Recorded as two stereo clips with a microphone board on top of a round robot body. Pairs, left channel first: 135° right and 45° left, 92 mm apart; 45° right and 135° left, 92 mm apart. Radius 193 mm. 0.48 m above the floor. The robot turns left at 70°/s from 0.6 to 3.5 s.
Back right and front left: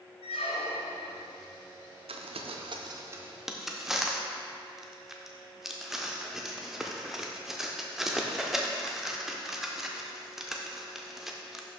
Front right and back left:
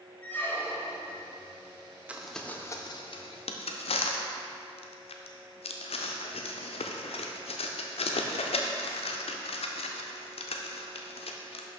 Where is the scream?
No scream in this recording.